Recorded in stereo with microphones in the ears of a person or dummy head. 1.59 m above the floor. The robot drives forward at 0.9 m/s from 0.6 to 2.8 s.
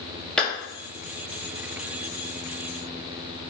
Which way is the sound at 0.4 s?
Centre (ahead or behind).